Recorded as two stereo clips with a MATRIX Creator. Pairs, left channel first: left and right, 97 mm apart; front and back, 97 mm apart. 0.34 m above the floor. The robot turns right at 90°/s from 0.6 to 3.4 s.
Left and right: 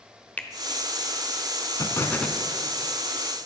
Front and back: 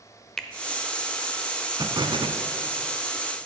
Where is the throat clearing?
No throat clearing in this recording.